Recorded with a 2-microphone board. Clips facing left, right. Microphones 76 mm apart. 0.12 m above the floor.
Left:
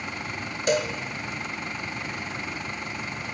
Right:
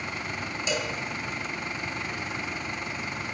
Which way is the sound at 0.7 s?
55° left (ahead or behind).